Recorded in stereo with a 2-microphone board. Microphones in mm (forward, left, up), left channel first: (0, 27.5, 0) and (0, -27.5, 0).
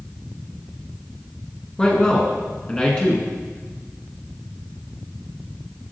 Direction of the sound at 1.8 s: 20° left (ahead or behind).